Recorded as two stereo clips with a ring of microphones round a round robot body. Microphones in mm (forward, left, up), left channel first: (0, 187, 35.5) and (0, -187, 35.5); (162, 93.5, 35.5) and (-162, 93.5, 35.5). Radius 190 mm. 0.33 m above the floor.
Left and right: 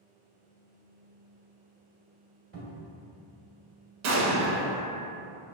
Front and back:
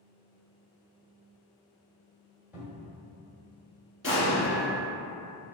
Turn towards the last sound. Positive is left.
turn(degrees=-90)